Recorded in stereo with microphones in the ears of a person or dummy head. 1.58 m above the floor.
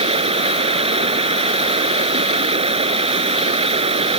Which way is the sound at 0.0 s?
35° right (ahead or behind).